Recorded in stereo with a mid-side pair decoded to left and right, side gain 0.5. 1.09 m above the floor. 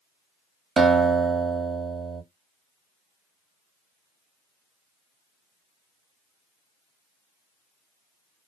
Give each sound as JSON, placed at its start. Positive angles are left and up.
{"t": 0.8, "sound": "a guitar", "azimuth_deg": -40, "distance_m": 0.9}